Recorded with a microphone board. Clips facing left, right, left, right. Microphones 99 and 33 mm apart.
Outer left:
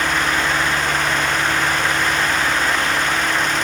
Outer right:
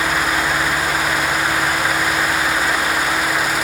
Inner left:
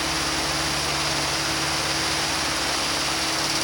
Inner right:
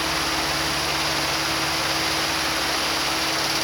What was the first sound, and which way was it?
Only background noise.